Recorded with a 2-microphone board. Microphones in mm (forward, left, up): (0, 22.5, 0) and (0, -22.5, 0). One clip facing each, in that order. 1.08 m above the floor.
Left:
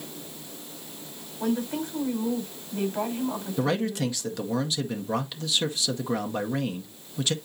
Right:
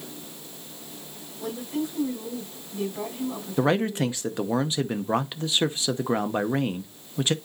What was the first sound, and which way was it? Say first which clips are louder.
A woman speaking: left 2 dB; 45° left (ahead or behind).